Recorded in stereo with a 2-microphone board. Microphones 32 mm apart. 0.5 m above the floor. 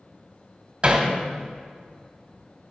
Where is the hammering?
35° right (ahead or behind), 1.4 m.